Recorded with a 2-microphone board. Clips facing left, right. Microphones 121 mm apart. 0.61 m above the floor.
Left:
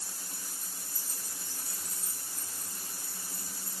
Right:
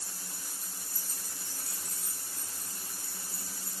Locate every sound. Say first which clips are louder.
0.3 s keys jangling: even; 5° left (ahead or behind), 9 m; by 3.7 s 20° left (ahead or behind), 7 m